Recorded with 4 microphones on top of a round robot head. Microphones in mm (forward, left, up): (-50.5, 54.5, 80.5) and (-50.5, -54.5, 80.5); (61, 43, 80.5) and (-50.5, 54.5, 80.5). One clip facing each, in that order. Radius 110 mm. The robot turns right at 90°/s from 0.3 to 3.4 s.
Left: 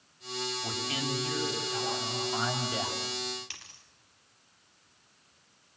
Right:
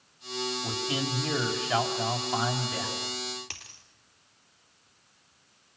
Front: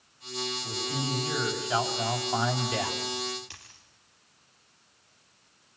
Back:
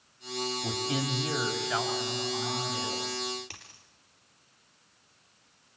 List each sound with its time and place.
0.6 s a man speaking: straight behind, 4.5 m; by 3.0 s 35° left, 4.5 m
3.5 s a dropped coin: 130° right, 4 m